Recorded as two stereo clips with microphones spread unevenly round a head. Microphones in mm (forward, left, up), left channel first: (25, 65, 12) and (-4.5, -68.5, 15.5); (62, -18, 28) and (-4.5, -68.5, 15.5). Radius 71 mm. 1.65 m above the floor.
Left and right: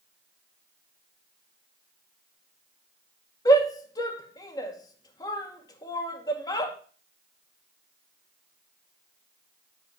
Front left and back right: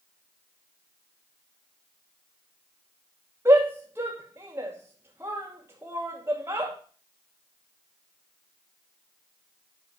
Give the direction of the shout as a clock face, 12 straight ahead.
7 o'clock.